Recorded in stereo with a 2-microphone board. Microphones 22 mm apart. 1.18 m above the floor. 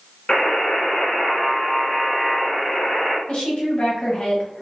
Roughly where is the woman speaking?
Left.